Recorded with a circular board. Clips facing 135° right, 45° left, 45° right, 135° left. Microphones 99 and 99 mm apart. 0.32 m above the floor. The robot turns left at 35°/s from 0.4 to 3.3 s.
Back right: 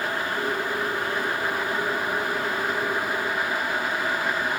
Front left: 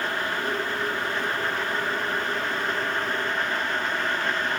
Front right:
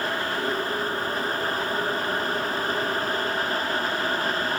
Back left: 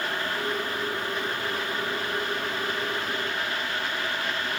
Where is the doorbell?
I don't hear a doorbell.